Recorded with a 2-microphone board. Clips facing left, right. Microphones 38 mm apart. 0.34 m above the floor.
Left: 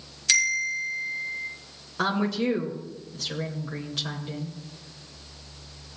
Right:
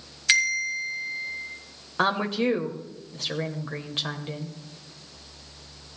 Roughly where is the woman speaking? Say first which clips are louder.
Right 2 dB; right.